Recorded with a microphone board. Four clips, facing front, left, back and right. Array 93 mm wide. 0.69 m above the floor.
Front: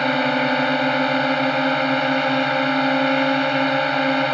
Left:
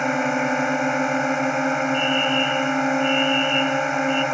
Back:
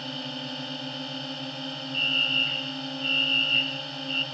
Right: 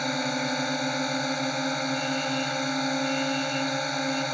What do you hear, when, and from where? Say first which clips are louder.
0.0 s a drone: left 7 dB, front 18 dB; 30° left
1.9 s a fire alarm: left 7 dB, front 11 dB; 135° left